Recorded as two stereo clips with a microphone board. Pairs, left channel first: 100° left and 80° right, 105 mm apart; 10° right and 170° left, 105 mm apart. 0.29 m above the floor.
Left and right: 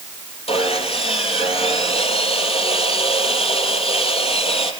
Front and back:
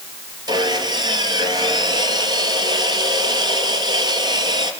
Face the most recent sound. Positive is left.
turn(degrees=125)